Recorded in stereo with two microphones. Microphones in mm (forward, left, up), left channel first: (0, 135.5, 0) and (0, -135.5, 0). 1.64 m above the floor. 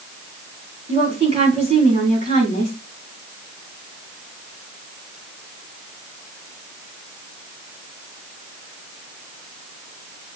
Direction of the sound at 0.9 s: 20° right (ahead or behind).